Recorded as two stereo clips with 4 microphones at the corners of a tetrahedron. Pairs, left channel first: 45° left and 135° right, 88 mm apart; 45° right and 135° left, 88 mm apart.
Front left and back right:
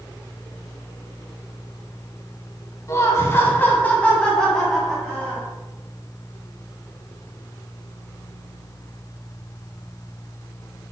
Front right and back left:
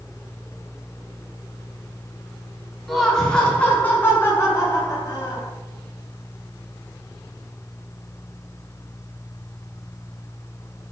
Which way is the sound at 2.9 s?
40° left.